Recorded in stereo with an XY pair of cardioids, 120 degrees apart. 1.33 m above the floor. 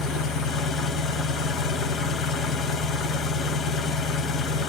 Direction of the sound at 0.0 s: 65° left.